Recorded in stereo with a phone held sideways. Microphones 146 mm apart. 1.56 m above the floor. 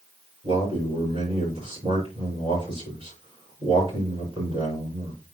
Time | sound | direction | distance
0.4 | a man speaking | 35° right (ahead or behind) | 5.5 m